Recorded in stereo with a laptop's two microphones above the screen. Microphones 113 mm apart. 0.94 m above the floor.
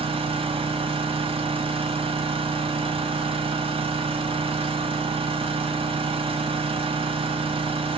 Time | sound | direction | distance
0.0 | an engine running | 55° right (ahead or behind) | 1.3 m